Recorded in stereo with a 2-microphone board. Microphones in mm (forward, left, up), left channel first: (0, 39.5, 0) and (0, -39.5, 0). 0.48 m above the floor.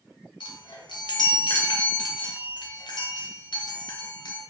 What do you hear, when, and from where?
0.4 s a chime: 80° left, 0.5 m